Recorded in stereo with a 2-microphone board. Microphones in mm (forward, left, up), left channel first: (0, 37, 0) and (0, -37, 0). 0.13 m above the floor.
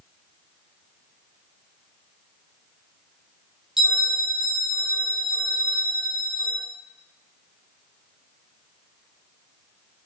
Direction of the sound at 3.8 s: 5° right (ahead or behind).